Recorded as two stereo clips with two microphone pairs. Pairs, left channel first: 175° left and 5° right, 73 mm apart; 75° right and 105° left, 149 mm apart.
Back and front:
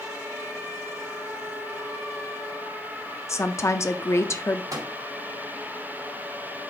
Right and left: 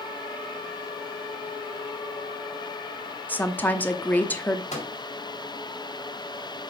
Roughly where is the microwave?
Ahead right.